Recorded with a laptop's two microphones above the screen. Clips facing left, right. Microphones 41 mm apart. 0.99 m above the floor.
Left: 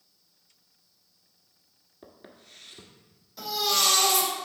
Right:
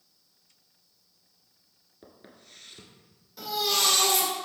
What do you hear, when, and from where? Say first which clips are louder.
2.0 s footsteps: left 2 dB; 5° left (ahead or behind), 0.9 m
3.4 s a baby crying: left 1 dB; centre (ahead or behind), 2 m